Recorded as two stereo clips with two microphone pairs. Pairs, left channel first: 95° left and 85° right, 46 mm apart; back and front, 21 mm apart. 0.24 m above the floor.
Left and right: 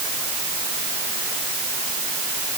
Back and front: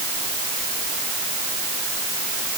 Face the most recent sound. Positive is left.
No sound to turn to.